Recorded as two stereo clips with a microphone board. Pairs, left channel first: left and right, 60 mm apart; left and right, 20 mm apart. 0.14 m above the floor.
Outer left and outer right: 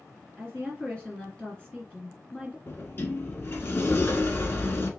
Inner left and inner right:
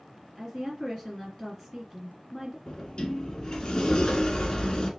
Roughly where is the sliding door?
Left.